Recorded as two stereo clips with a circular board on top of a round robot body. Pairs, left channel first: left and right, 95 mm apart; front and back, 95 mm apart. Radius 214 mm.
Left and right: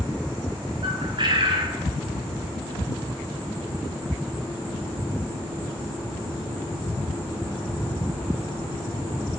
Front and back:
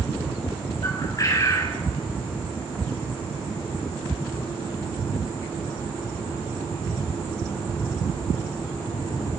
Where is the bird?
55° right, 6.5 m.